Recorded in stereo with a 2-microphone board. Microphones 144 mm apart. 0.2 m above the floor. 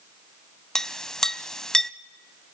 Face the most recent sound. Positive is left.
turn(degrees=5)  # may be behind; listen again after turning